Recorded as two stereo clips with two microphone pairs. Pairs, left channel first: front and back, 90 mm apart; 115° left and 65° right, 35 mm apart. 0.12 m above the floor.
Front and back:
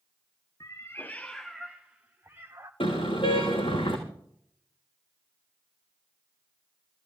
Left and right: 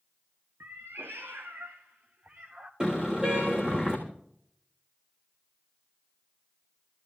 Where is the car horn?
Straight ahead, 4.5 m.